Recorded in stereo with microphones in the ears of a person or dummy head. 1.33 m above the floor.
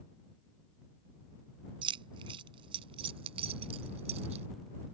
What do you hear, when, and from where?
1.8 s keys jangling: 25° right (ahead or behind); by 4.5 s 35° right (ahead or behind)